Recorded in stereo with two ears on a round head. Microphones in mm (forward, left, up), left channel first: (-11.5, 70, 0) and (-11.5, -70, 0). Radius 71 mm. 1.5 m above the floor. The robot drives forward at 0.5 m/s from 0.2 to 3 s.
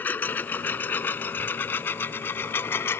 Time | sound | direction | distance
0.0 | a lawn mower | 10° left (ahead or behind) | ?